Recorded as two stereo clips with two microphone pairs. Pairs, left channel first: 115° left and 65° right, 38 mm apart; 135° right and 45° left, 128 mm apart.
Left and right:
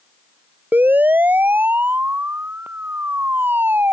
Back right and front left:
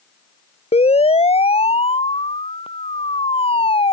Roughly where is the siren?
Right.